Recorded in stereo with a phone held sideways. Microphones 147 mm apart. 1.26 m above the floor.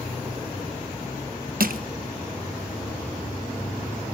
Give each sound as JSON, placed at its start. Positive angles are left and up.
{"t": 1.6, "sound": "crushing", "side_deg": -80, "distance_m": 1.1}